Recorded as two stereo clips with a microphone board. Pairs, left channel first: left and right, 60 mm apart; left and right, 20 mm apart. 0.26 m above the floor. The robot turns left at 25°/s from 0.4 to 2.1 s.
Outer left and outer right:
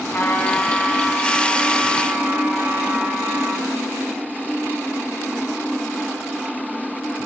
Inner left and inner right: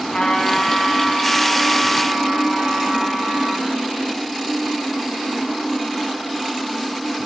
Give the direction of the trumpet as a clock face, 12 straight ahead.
11 o'clock.